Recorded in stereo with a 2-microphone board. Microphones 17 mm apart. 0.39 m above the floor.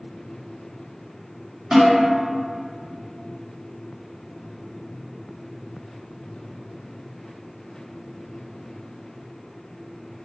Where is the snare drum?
55° right (ahead or behind), 1.7 m.